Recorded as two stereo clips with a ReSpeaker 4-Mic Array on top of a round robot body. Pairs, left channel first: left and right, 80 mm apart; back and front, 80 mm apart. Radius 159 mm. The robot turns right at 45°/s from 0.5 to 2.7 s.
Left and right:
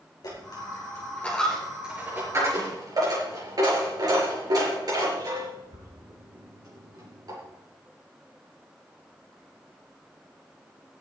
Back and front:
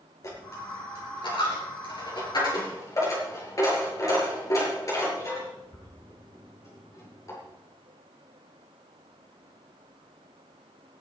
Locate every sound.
0.2 s a dropped coin: 130° left, 5.5 m; by 7.4 s 130° right, 5.5 m